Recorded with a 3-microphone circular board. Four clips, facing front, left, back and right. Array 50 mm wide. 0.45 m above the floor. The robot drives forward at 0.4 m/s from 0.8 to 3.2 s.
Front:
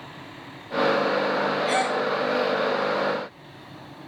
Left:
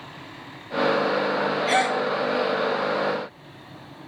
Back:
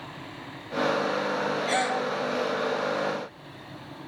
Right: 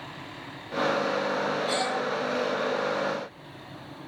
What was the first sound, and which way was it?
A gasp, 85° left.